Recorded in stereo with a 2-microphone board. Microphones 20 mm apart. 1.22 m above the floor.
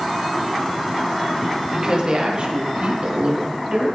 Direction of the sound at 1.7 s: 35° right (ahead or behind).